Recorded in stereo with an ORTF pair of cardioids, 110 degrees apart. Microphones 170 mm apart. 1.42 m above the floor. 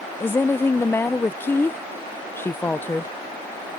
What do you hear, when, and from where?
0.2 s a woman speaking: 15° left